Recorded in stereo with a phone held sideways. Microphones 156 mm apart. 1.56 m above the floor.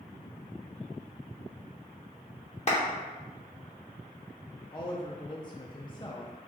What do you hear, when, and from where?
2.7 s a clap: 45° left (ahead or behind), 0.9 m
4.7 s a woman speaking: 30° left (ahead or behind), 0.5 m